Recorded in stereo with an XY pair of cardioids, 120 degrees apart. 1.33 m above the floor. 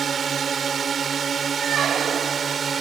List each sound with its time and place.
0.0 s a drone: 35° right
1.6 s a squeak: 50° right